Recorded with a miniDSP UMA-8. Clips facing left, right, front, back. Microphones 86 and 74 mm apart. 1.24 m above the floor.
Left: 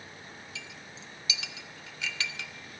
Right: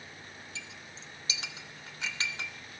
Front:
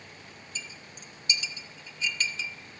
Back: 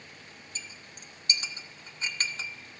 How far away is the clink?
About 0.9 m.